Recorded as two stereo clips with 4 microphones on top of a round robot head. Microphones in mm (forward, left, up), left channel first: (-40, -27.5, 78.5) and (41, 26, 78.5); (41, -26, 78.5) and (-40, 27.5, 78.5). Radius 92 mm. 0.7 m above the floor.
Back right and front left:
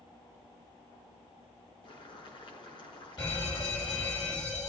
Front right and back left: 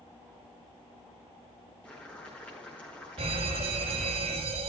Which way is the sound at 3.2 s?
160° left.